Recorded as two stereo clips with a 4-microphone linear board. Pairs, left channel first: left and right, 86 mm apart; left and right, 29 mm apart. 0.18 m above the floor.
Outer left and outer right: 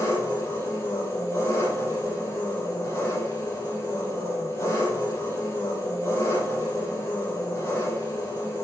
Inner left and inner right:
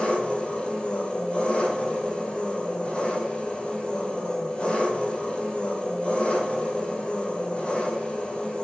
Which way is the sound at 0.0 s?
35° left (ahead or behind).